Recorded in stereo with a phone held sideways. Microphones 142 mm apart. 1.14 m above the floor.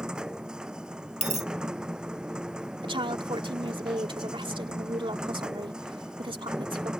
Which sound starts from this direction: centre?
A machine running, at 0.0 s.